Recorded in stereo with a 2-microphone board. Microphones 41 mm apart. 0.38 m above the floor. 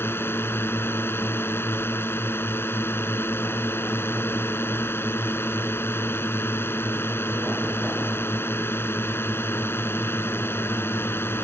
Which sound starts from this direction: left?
A drone, at 0.0 s.